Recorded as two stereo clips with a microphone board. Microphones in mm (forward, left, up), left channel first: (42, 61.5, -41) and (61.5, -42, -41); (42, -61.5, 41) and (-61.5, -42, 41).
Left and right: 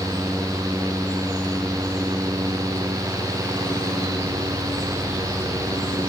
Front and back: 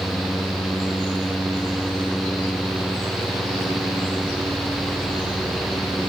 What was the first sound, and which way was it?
Only background noise.